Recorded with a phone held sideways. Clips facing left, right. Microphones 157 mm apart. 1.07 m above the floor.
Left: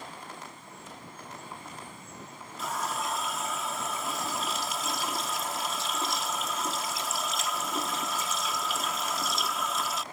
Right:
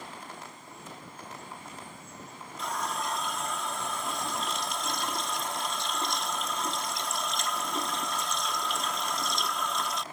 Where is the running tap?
5° left (ahead or behind).